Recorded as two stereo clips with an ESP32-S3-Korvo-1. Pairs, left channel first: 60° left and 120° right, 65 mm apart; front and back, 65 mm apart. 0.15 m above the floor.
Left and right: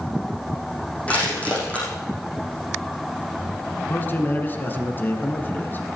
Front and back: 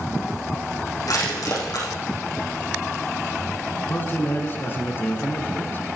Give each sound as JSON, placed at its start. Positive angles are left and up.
{"t": 1.1, "sound": "crushing", "azimuth_deg": -10, "distance_m": 5.0}
{"t": 3.9, "sound": "a man speaking", "azimuth_deg": 25, "distance_m": 1.3}